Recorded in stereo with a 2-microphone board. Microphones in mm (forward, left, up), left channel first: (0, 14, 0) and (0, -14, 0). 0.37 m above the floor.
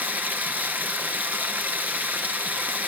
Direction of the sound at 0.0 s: 90° right.